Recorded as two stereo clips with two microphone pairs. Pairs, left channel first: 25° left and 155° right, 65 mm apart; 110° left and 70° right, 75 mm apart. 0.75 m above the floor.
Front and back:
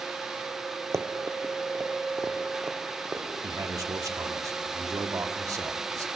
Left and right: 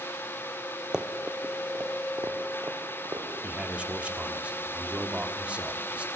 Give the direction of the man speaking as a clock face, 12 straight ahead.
5 o'clock.